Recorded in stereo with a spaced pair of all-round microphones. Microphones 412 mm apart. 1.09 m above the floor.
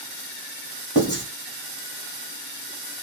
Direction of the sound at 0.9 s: 25° left (ahead or behind).